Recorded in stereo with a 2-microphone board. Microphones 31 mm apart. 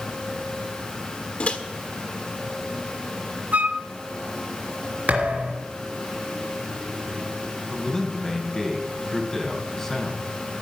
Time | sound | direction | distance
1.4 | a microwave | 45° left (ahead or behind) | 1.4 m
3.5 | a flute | 65° right (ahead or behind) | 1.1 m
5.1 | a thud | 55° right (ahead or behind) | 3.5 m
7.7 | a man speaking | 15° left (ahead or behind) | 3.5 m